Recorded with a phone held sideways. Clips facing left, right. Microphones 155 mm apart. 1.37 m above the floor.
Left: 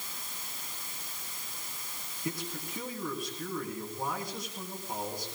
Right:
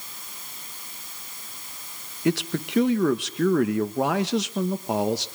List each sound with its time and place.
2.2 s a man speaking: 85° right, 1.3 m